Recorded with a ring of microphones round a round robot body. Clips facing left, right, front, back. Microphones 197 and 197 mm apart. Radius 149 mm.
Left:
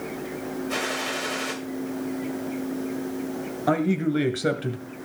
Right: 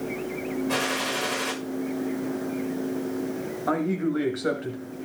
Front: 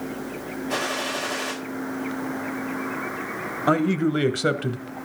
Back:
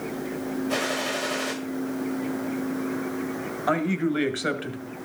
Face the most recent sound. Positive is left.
turn(degrees=35)